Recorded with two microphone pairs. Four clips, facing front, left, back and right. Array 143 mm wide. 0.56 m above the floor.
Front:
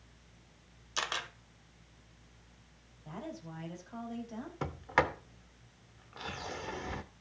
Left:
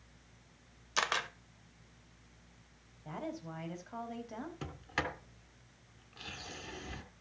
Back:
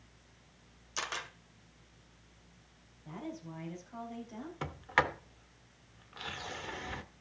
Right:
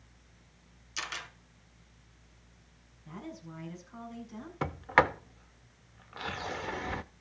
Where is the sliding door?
75° right, 0.6 m.